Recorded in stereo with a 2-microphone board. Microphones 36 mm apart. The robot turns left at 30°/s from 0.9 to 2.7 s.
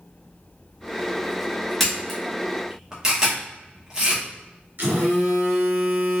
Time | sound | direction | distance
1.8 | a camera shutter | 5° left (ahead or behind) | 0.9 m
4.8 | a phone buzzing | 60° right (ahead or behind) | 1.3 m